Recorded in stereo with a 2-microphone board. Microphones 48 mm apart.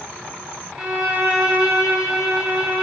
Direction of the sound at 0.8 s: 10° right (ahead or behind).